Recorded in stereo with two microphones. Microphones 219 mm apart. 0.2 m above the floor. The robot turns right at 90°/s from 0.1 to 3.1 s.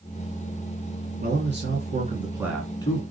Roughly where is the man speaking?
Behind right.